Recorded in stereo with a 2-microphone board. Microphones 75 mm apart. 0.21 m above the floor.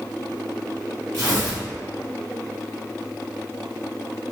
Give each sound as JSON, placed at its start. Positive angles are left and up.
{"t": 1.1, "sound": "tearing paper", "side_deg": -40, "distance_m": 1.8}